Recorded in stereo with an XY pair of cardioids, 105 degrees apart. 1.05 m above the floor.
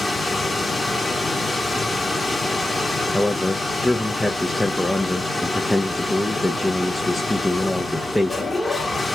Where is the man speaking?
10° left, 0.7 m.